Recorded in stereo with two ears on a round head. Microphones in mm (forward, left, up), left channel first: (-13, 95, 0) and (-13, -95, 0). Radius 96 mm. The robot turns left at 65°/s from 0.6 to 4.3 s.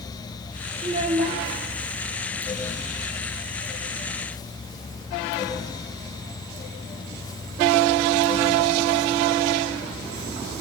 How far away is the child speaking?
About 0.8 m.